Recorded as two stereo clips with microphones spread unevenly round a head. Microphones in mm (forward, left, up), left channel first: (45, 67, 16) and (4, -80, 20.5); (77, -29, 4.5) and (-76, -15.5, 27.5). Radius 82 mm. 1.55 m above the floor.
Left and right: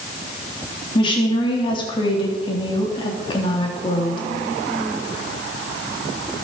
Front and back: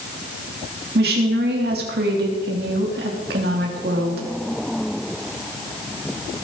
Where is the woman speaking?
140° left, 3.5 m.